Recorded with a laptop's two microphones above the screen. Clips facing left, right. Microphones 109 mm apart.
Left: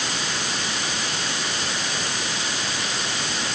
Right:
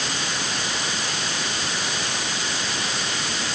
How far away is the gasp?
No gasp in this recording.